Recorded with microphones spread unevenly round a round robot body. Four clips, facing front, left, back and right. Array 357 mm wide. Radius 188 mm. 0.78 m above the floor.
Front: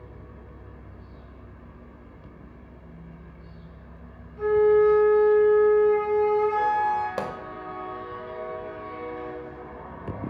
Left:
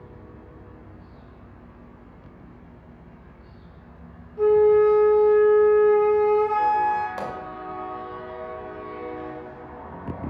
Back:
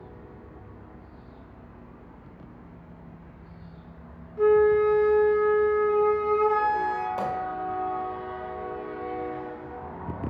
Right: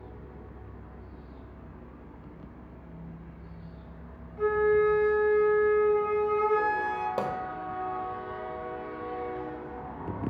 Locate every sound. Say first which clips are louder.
4.4 s a flute: left 8 dB, even; 120° left, 2.5 m
7.2 s a pop: right 1 dB, back 1 dB; 35° right, 1.8 m